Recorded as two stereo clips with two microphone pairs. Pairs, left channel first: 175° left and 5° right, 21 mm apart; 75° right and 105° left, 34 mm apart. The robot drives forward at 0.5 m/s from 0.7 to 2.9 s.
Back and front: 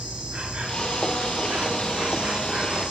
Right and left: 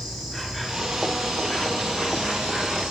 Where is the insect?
25° left, 3.5 m; by 2.9 s 35° left, 2.5 m.